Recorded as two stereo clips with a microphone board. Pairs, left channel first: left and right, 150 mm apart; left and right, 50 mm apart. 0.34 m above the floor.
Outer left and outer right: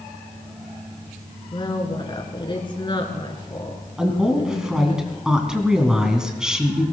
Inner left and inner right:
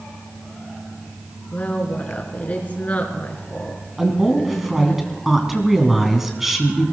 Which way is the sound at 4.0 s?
5° right (ahead or behind).